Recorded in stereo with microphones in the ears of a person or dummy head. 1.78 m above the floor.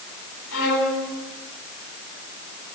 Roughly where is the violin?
Left.